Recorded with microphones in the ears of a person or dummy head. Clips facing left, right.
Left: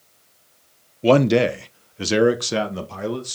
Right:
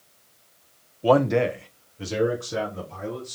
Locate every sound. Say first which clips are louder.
1.0 s a man speaking: left 4 dB; 30° left (ahead or behind), 0.7 m; by 3.4 s 80° left, 1.9 m